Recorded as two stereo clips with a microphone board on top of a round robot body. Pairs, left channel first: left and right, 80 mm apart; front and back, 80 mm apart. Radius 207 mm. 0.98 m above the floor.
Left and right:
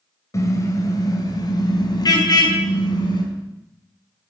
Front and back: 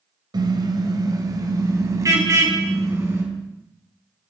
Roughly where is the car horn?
Behind left.